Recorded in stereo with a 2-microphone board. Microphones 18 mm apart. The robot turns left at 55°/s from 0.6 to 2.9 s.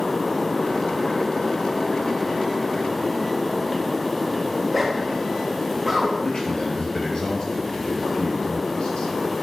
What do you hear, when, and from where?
4.5 s a zipper: 5° right (ahead or behind), 2 m
6.2 s a man speaking: 50° left (ahead or behind), 3 m